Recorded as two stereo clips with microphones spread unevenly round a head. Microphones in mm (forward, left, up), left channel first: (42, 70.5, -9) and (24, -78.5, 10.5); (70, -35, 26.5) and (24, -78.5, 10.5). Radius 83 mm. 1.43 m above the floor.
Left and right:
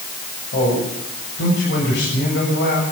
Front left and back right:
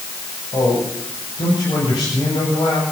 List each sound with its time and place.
0.5 s a man speaking: 90° left, 8 m